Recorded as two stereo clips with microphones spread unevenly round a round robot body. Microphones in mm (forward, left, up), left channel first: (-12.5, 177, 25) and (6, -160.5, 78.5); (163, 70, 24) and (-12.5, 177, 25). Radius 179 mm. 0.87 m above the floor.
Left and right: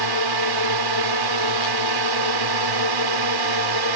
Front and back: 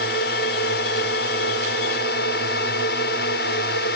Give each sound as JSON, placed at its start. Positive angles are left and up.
{"t": 0.0, "sound": "a drone", "azimuth_deg": -85}